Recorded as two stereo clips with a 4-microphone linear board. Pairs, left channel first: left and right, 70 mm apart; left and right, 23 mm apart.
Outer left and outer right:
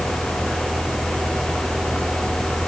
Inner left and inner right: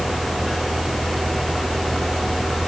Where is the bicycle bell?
No bicycle bell in this recording.